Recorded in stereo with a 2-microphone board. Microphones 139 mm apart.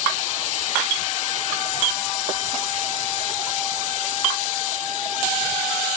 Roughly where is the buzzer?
I don't hear a buzzer.